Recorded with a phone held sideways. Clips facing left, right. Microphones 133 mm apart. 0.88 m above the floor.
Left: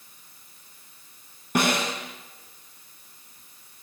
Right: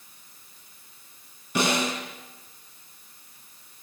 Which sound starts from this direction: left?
A snare drum, at 1.6 s.